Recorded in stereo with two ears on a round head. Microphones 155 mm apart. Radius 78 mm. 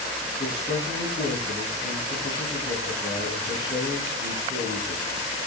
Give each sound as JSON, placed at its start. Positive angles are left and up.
{"t": 0.3, "sound": "a man speaking", "side_deg": 25, "distance_m": 9.0}